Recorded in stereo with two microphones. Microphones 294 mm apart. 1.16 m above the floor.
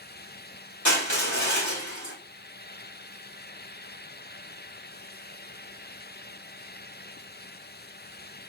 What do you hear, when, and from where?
0.8 s crushing: 70° left (ahead or behind), 1.9 m